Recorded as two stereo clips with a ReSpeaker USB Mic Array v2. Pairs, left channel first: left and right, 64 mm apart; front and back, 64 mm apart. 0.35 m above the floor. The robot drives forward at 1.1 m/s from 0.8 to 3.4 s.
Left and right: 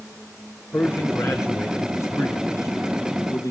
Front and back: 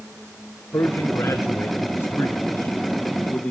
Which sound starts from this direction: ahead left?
A man speaking, at 0.7 s.